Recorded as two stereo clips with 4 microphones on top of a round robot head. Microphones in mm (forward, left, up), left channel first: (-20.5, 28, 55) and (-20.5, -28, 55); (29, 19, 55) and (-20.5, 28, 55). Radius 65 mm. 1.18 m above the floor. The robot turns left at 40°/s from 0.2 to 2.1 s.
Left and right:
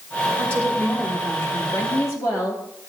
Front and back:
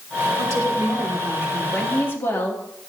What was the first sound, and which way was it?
A woman speaking, 160° left.